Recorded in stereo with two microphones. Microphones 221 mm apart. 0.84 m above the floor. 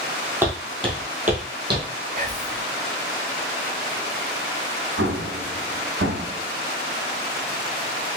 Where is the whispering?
35° right (ahead or behind), 0.8 m.